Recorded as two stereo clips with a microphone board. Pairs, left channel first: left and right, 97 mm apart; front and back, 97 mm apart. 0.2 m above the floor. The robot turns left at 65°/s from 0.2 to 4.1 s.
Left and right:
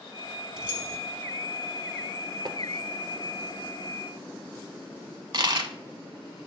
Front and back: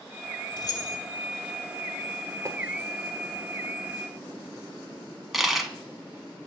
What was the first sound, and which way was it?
Keys jangling, 10° right.